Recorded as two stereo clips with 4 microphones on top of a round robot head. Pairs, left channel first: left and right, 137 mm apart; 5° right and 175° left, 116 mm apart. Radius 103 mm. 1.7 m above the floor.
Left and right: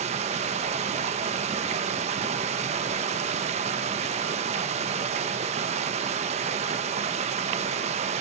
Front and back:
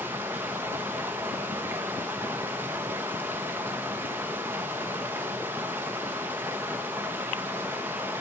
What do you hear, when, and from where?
0.0 s running water: 110° right, 1.1 m